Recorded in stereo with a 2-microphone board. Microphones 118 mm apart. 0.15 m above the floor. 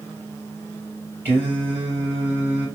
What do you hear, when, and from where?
1.2 s singing: 15° right (ahead or behind), 3 m